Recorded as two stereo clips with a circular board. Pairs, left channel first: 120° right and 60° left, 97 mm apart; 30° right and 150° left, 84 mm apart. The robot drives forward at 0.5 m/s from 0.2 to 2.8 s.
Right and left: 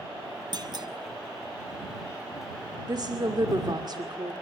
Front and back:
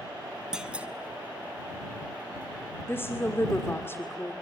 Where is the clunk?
70° left, 1.3 m; by 0.9 s 80° left, 1.2 m.